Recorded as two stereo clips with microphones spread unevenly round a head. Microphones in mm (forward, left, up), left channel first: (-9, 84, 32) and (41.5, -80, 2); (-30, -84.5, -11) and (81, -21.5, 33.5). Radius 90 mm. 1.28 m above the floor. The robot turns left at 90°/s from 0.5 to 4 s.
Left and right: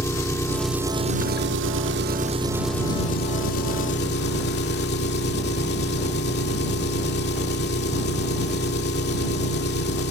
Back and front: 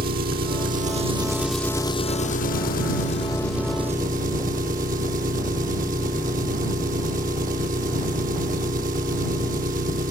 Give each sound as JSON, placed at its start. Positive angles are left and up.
{"t": 0.0, "sound": "an engine running", "azimuth_deg": 35}